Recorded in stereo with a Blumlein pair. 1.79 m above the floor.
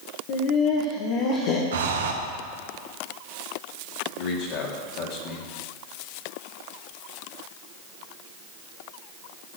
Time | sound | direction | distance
0.3 | laughter | 45° left | 1.8 m
1.7 | breathing | 65° right | 1.5 m
4.2 | a man speaking | 40° left | 3.5 m